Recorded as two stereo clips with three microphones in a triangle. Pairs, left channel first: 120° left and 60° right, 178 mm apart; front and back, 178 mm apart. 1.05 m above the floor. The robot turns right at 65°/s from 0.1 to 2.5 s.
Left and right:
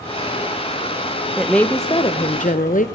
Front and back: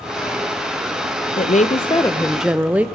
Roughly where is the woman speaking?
Ahead left.